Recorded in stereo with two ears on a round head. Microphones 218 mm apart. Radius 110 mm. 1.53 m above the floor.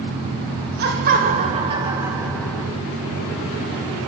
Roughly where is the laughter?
Right.